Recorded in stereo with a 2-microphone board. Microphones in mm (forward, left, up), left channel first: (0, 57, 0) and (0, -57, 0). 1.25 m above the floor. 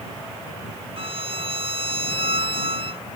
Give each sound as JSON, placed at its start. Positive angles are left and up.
{"t": 1.0, "sound": "a violin", "side_deg": -55}